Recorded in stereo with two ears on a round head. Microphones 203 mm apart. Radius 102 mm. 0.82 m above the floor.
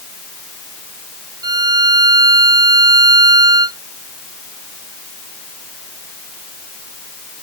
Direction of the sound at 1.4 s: 15° right (ahead or behind).